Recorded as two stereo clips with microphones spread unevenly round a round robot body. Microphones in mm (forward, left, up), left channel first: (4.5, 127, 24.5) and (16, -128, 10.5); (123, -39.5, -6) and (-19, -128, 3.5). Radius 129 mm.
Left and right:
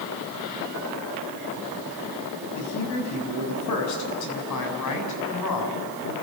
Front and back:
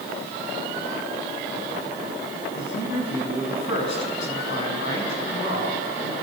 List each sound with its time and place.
2.5 s a man speaking: 65° left, 6 m; by 6.1 s 80° left, 7 m